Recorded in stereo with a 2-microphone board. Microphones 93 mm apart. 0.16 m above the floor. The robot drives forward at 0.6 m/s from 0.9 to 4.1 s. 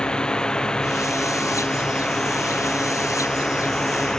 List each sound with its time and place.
0.0 s a drone: 10° left (ahead or behind); by 4.2 s 5° left (ahead or behind)